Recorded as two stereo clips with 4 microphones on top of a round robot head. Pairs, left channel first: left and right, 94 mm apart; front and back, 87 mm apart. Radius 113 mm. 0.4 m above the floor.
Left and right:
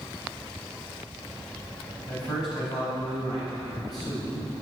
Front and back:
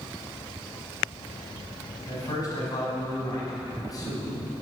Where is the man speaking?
45° left, 5 m.